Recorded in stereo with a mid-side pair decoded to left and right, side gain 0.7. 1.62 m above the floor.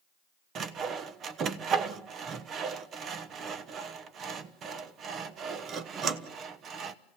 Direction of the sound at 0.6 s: 40° right.